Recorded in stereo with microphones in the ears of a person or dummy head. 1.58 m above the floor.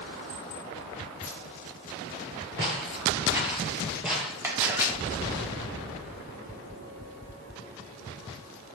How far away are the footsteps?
About 1.6 m.